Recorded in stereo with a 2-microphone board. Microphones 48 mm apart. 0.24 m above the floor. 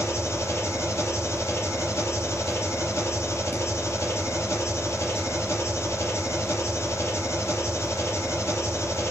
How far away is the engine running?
About 4 m.